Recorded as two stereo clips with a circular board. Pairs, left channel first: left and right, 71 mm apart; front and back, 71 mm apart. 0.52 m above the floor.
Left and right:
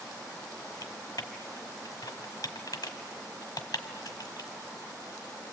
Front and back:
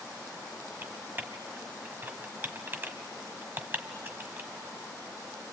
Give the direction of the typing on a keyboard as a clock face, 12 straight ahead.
8 o'clock.